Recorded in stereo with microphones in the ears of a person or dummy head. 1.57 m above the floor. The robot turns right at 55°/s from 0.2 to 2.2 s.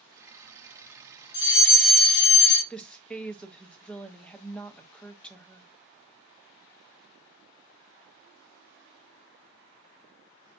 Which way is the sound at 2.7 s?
5° left (ahead or behind).